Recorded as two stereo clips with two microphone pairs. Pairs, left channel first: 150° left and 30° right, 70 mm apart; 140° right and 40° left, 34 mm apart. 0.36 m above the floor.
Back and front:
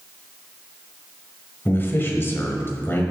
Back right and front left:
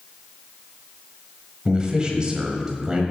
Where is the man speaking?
100° left, 1.7 m.